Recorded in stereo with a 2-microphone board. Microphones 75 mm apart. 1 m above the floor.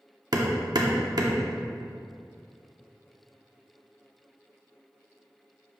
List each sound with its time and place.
0.3 s hammering: 60° right (ahead or behind), 0.9 m